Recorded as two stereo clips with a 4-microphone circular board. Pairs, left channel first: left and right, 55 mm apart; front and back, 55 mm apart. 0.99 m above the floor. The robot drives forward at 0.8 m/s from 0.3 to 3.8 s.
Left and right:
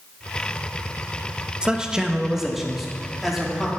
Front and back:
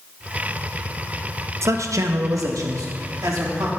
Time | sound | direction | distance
1.6 | a man speaking | 160° right | 0.6 m